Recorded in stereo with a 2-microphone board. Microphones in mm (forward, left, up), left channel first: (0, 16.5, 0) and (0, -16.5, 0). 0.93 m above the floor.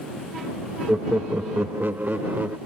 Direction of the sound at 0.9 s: 35° right (ahead or behind).